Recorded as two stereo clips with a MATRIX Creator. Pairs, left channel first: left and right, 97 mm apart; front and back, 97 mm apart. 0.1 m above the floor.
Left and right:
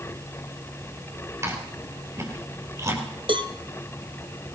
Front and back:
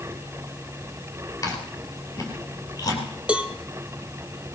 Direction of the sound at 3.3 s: 105° right.